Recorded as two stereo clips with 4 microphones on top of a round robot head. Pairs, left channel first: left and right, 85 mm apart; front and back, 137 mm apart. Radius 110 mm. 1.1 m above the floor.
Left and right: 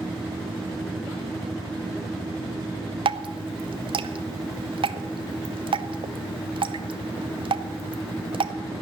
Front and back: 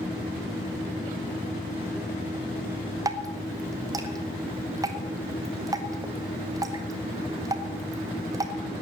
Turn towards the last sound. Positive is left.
turn(degrees=-115)